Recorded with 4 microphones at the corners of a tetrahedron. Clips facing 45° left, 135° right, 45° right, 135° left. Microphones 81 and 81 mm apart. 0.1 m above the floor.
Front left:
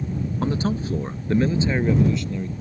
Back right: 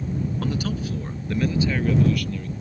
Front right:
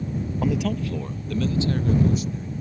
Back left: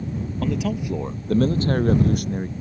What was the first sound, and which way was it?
A man speaking, 20° left.